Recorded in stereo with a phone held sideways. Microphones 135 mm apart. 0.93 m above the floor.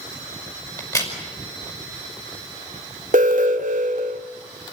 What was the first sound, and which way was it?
A crack, 25° left (ahead or behind).